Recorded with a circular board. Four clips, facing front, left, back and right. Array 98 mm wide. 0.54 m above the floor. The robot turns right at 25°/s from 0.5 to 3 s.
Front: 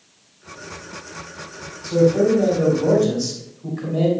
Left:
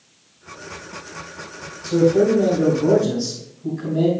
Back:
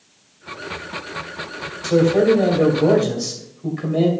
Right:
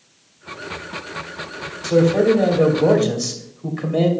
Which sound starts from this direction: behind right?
A man speaking, at 1.8 s.